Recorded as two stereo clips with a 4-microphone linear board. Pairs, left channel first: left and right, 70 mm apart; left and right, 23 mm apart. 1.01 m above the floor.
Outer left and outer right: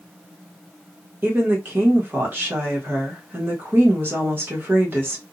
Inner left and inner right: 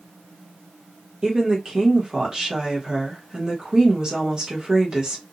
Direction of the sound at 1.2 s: 30° right (ahead or behind).